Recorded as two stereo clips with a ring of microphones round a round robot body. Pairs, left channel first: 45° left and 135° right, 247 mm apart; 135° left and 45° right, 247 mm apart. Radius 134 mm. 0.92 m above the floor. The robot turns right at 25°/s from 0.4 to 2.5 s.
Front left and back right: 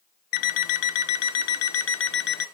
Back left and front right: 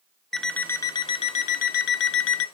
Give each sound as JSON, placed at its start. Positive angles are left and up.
{"t": 0.3, "sound": "an alarm clock", "azimuth_deg": 45, "distance_m": 0.7}